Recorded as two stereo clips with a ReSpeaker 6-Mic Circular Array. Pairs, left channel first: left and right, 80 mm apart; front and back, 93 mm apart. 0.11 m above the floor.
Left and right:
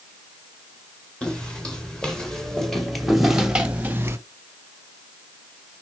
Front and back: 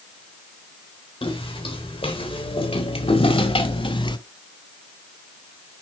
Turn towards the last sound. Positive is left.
turn(degrees=-35)